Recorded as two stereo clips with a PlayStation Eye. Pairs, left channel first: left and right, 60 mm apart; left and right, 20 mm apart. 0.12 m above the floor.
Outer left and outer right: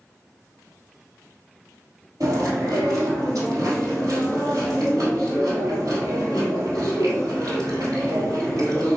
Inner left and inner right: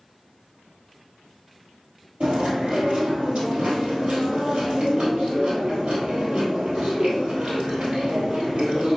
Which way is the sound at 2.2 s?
65° right (ahead or behind).